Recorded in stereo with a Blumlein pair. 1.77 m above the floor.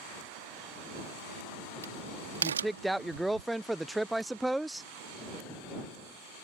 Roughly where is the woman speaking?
Ahead.